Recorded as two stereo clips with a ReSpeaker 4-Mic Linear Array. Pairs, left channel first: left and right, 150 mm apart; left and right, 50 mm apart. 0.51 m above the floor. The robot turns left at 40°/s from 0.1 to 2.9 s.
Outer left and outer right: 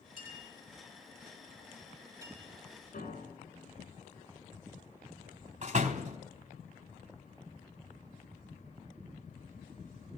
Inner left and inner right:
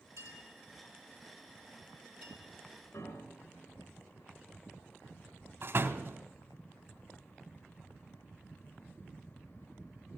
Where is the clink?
75° right (ahead or behind), 10 m; by 2.4 s 15° right (ahead or behind), 10 m.